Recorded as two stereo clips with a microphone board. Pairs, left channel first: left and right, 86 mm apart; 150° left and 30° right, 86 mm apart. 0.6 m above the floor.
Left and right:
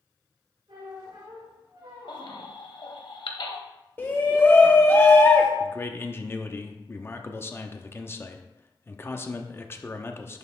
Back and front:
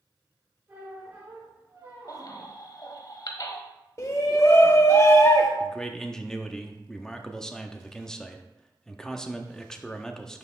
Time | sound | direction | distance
0.7 | a squeak | 95° right | 3.5 m
2.1 | a baby crying | 110° left | 1.0 m
4.0 | a shout | 140° left | 0.6 m
5.6 | a man speaking | 75° left | 0.7 m